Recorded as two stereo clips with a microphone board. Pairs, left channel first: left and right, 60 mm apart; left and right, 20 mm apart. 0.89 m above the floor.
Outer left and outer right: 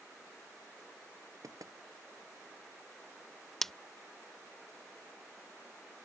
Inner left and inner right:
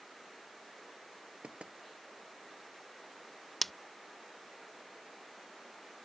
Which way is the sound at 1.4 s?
70° right (ahead or behind).